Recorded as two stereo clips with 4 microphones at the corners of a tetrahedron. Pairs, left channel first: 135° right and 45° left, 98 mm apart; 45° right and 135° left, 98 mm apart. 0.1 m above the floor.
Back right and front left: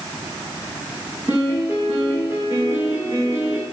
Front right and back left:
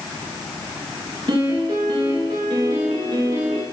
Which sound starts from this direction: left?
A piano, at 1.3 s.